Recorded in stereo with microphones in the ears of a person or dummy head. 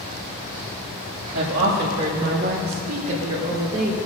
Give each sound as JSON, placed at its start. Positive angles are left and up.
{"t": 1.3, "sound": "a woman speaking", "side_deg": -70, "distance_m": 2.0}